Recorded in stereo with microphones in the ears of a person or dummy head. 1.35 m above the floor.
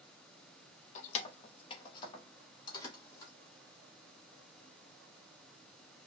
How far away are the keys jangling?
About 0.8 m.